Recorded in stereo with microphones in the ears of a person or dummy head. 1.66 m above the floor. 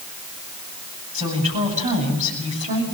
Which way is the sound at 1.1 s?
35° right (ahead or behind).